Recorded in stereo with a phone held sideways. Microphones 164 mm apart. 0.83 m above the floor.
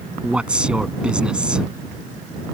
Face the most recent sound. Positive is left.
turn(degrees=-5)  # may be behind; listen again after turning